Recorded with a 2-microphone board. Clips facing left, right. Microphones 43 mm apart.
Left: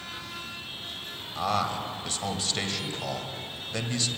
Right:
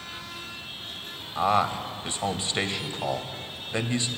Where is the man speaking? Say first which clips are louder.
Right 4 dB; 20° right (ahead or behind), 1.6 m.